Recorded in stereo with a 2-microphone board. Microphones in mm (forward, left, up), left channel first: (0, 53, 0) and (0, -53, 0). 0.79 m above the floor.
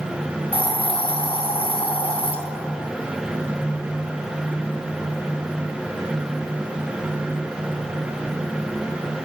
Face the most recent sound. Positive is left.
turn(degrees=60)  # may be behind; listen again after turning